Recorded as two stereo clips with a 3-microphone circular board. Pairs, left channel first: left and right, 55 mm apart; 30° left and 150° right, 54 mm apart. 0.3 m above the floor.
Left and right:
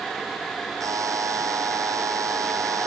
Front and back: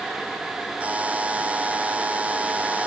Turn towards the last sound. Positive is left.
turn(degrees=-85)